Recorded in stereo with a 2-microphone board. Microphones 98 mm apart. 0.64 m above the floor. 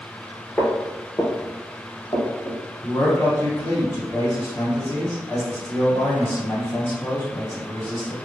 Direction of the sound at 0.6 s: 20° left (ahead or behind).